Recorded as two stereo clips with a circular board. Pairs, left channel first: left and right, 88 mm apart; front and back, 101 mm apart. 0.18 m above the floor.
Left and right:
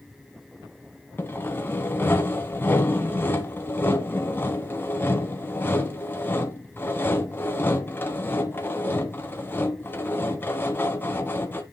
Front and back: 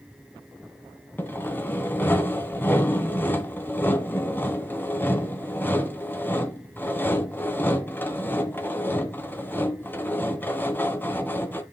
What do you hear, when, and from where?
1.2 s sawing: 50° left, 1.9 m